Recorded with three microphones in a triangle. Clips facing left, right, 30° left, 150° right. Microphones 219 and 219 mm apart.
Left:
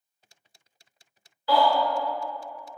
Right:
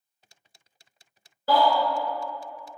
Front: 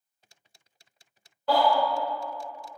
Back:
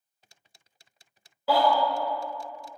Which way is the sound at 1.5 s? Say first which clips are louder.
Even, even; 65° right.